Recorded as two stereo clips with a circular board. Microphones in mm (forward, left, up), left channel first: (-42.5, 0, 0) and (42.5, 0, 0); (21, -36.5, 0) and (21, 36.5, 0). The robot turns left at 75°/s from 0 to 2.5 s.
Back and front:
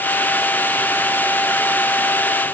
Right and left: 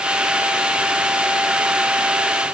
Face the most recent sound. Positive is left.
No sound to turn to.